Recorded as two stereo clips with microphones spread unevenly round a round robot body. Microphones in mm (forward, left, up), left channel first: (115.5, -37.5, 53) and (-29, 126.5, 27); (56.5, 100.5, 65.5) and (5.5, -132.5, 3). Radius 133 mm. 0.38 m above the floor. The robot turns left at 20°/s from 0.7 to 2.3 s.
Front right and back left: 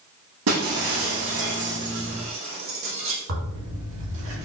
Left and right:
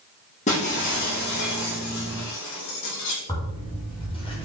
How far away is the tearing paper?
About 3.5 m.